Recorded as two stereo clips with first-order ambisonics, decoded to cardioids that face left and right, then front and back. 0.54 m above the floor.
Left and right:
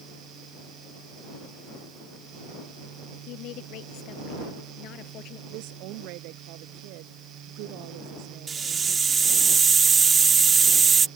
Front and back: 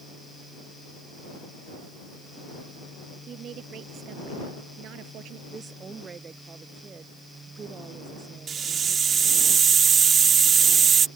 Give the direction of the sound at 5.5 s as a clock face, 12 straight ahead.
4 o'clock.